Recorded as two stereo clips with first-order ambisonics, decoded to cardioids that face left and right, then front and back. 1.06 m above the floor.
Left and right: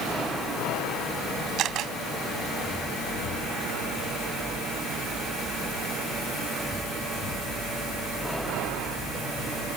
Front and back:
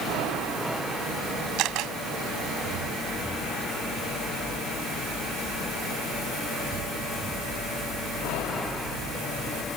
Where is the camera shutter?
140° right.